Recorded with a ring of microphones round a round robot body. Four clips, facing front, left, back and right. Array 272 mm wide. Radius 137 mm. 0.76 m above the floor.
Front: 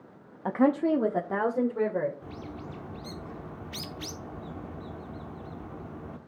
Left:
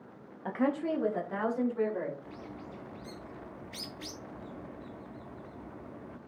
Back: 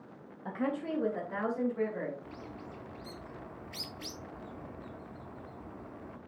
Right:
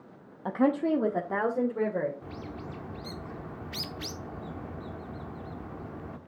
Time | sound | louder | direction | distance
0.5 | a woman speaking | right 5 dB, front 10 dB | 15° right | 0.6 m
2.2 | a bird | right 4 dB, front 5 dB | 50° right | 1.0 m